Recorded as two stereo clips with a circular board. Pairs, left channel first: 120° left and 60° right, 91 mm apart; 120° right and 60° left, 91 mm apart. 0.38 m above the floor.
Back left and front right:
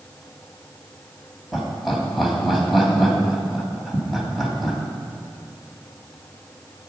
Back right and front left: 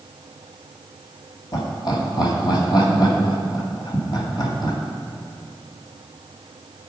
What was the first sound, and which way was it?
Laughter, 150° right.